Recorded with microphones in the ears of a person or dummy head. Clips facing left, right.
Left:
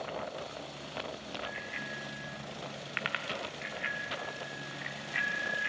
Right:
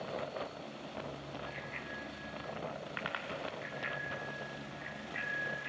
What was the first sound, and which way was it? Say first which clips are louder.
A bicycle bell: left 2 dB; centre (ahead or behind).